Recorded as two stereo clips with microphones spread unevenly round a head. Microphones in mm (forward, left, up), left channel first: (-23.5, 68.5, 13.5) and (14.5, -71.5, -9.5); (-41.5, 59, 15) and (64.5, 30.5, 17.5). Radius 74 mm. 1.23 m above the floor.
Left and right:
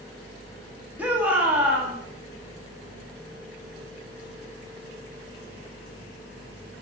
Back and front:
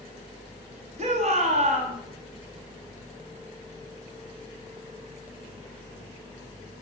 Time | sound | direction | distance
1.0 | a shout | 5° left | 2.0 m